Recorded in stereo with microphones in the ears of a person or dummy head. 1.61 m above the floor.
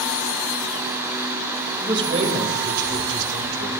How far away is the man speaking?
About 3 m.